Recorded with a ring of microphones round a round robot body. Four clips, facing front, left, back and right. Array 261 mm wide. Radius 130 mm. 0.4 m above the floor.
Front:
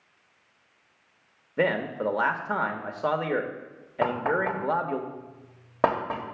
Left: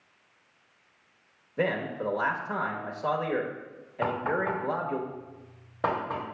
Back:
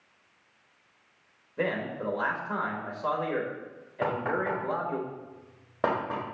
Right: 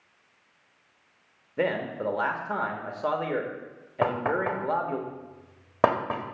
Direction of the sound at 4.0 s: 60° right.